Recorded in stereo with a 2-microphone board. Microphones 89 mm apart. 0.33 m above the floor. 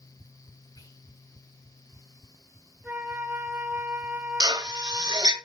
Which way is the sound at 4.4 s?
50° right (ahead or behind).